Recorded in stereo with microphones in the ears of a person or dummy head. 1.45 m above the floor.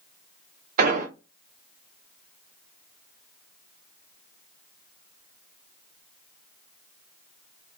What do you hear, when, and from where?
0.8 s an explosion: 40° right (ahead or behind), 0.6 m